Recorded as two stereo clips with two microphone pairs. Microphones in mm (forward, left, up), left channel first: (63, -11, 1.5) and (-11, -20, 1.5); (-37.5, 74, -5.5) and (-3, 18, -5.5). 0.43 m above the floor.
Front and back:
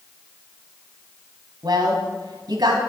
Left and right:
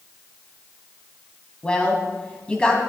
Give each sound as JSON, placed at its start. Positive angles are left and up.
{"t": 1.6, "sound": "a woman speaking", "azimuth_deg": -165, "distance_m": 3.0}